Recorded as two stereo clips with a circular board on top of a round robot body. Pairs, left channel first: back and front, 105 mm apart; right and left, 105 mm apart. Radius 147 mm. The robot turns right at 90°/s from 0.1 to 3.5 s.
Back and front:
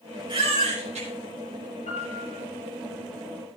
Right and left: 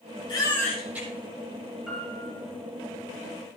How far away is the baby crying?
About 6 m.